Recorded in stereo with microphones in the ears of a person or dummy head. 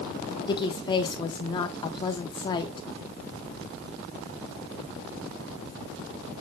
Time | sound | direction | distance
0.5 | a woman speaking | 20° left (ahead or behind) | 0.9 m